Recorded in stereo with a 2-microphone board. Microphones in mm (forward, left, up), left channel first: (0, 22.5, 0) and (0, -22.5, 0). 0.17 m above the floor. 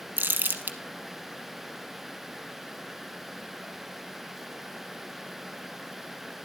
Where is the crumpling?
45° right (ahead or behind), 1.1 m.